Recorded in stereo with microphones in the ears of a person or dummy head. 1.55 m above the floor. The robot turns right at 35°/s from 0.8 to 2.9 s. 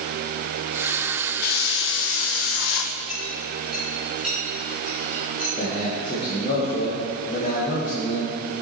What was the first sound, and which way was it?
A hiss, 55° left.